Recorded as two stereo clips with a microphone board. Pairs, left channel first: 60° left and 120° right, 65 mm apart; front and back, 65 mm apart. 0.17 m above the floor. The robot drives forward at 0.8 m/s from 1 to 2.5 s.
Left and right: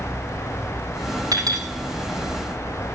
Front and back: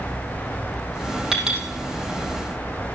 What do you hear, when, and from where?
1.3 s a clink: 100° right, 3.5 m; by 1.7 s 105° right, 3.5 m